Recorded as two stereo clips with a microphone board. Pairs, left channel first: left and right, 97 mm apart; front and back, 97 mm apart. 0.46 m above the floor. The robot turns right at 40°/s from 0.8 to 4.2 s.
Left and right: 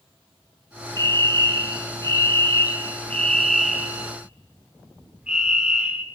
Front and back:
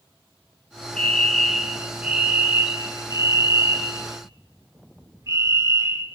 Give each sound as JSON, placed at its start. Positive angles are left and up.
{"t": 1.0, "sound": "a fire alarm", "azimuth_deg": 70, "distance_m": 2.5}